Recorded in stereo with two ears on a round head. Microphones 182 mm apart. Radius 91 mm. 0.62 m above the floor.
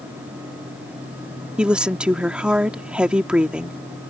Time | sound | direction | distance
1.6 | a woman speaking | 5° right (ahead or behind) | ?